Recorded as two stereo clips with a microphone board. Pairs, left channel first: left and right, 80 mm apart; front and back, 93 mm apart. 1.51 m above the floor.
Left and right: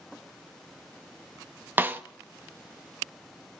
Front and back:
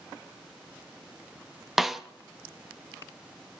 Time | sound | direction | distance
1.8 | a snare drum | 95° right | 0.8 m